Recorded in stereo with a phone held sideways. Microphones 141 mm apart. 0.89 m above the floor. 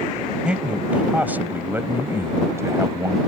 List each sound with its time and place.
0.5 s a man speaking: 5° right (ahead or behind); by 3.2 s 20° right (ahead or behind)